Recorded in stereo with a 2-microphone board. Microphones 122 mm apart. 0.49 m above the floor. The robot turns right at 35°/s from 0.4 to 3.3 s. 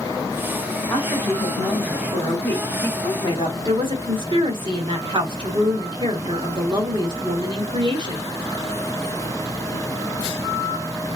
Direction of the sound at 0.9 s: 15° left.